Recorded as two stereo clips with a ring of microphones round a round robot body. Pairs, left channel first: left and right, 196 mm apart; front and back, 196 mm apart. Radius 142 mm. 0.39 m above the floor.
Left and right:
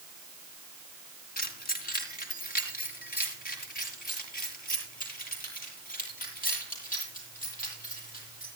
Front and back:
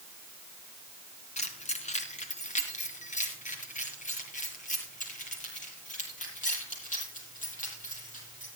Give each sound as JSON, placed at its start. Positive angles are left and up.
{"t": 1.4, "sound": "keys jangling", "azimuth_deg": 50, "distance_m": 3.5}